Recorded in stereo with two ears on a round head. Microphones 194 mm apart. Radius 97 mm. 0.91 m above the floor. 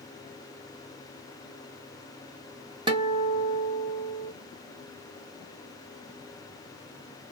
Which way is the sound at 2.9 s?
20° right (ahead or behind).